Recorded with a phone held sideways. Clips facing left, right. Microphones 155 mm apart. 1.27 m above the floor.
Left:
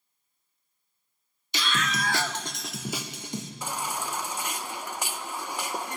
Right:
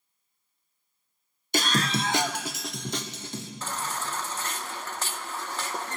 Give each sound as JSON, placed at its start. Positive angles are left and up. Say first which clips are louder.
{"t": 1.5, "sound": "a scream", "louder": "right 4 dB", "side_deg": -50, "distance_m": 0.9}
{"t": 3.6, "sound": "a baby crying", "louder": "even", "side_deg": 15, "distance_m": 0.7}